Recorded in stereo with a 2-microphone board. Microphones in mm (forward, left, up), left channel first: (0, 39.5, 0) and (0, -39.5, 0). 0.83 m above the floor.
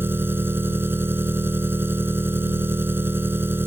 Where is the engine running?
25° right (ahead or behind).